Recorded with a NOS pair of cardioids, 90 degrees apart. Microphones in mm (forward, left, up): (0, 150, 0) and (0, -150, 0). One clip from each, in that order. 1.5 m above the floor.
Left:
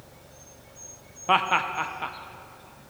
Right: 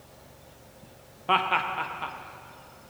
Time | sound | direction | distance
1.3 | laughter | 10° left | 0.9 m